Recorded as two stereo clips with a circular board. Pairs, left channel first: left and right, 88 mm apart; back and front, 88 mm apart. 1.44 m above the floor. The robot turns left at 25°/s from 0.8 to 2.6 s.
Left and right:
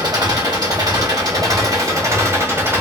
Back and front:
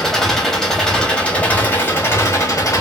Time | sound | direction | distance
0.0 | an engine running | 100° right | 1.7 m